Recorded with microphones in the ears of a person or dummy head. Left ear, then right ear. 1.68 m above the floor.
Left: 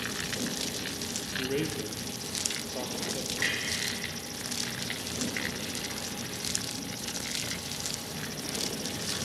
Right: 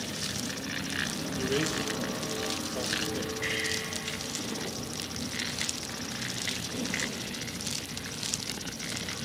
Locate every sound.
1.4 s a man speaking: centre (ahead or behind), 0.9 m
3.4 s a clunk: 60° left (ahead or behind), 3.5 m